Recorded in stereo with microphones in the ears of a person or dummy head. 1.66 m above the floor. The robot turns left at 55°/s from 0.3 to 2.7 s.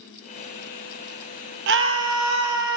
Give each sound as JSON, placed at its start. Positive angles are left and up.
{"t": 1.7, "sound": "a scream", "azimuth_deg": -60, "distance_m": 0.9}